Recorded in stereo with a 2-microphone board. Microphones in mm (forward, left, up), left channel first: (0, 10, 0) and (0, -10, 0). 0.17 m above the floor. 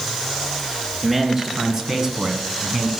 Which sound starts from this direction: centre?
A man speaking, at 1.0 s.